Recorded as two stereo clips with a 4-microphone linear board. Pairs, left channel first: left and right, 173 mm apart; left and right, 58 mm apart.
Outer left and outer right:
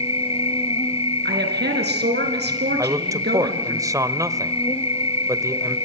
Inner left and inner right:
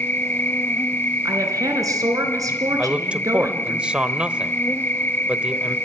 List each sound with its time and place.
0.0 s an insect: 35° left (ahead or behind), 1.0 m
1.2 s a woman speaking: 75° right (ahead or behind), 4 m
2.8 s a man speaking: 20° right (ahead or behind), 1.2 m